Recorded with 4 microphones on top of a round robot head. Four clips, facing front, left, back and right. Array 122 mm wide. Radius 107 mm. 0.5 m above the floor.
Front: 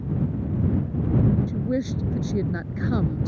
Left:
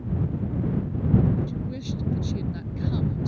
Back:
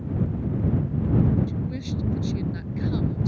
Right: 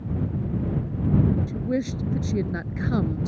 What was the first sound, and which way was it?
A woman speaking, 40° right.